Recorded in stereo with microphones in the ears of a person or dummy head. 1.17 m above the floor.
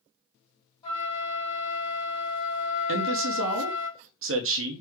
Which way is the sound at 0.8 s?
25° left (ahead or behind).